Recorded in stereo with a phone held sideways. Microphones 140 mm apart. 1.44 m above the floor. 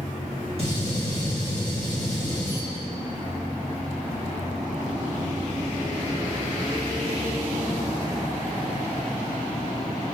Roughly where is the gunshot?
Right.